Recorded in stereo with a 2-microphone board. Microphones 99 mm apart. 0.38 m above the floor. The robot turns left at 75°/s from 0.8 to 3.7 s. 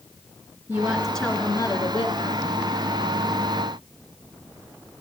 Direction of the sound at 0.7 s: 155° right.